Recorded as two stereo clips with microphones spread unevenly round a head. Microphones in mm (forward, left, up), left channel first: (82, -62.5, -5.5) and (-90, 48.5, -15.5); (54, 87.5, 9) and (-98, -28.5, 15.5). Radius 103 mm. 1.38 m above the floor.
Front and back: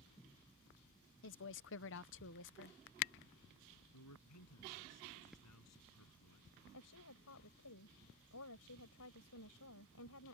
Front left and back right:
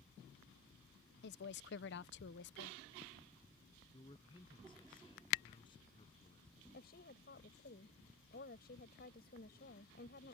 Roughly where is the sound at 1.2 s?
Ahead.